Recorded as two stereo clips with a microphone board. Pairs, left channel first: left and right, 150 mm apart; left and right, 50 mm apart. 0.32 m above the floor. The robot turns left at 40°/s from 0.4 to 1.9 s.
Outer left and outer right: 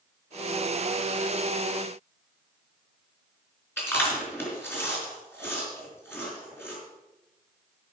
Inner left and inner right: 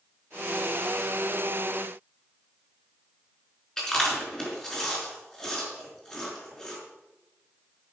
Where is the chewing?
15° left (ahead or behind), 5 m.